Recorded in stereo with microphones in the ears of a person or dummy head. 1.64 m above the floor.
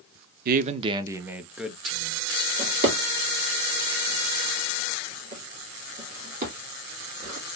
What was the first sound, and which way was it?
A man speaking, 55° right (ahead or behind).